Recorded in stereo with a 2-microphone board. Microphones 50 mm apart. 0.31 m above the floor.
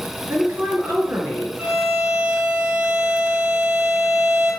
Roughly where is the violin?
Centre.